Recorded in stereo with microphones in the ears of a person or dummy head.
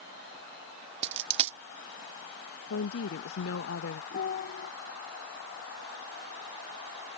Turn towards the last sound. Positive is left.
turn(degrees=55)  # may be behind; listen again after turning